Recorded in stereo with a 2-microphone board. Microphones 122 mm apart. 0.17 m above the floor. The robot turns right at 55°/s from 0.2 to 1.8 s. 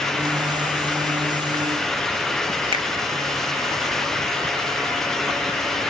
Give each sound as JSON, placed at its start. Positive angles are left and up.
{"t": 2.7, "sound": "a finger snap", "side_deg": -45, "distance_m": 1.7}